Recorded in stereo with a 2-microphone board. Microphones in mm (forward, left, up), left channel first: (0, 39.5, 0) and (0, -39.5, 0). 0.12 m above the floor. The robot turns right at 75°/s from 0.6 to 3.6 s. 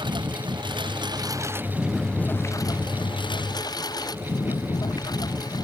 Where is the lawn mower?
105° right; by 5.7 s 120° left.